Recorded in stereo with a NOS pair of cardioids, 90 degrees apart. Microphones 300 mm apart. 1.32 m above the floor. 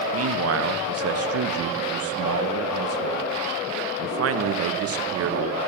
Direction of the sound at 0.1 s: 50° right.